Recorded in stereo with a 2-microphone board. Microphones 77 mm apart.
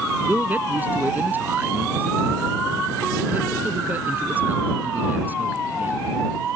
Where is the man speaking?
25° right (ahead or behind).